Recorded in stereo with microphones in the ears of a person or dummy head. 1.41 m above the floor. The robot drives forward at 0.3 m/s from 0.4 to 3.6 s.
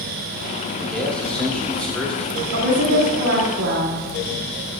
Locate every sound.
0.8 s a man speaking: centre (ahead or behind), 1.0 m
2.5 s a woman speaking: 75° right (ahead or behind), 2 m; by 4.0 s 80° right, 2 m